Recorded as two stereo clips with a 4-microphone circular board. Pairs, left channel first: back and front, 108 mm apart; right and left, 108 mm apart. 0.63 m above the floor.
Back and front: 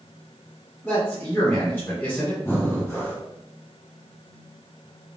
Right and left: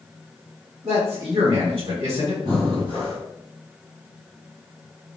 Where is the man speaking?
115° left, 1.4 m.